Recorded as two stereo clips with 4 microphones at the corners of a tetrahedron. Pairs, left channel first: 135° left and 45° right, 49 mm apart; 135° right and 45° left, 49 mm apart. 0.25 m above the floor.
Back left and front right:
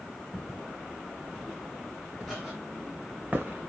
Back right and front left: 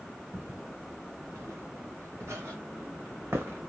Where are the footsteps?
50° left, 3.5 m; by 3.7 s straight ahead, 0.8 m.